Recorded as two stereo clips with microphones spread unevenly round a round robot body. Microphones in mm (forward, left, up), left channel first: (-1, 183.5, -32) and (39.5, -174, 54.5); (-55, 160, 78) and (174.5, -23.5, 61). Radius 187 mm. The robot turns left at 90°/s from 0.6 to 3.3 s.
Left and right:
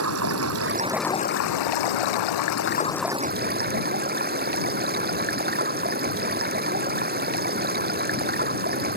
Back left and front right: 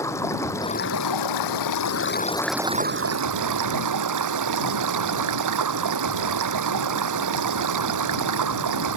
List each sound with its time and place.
0.0 s running water: 135° right; by 9.0 s 20° right